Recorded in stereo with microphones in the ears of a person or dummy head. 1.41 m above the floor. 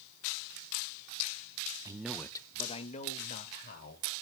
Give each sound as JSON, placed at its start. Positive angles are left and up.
{"t": 1.9, "sound": "a man speaking", "side_deg": -20, "distance_m": 1.0}